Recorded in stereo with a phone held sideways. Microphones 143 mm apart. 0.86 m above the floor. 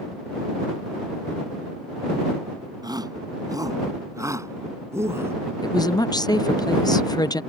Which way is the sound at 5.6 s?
30° left (ahead or behind).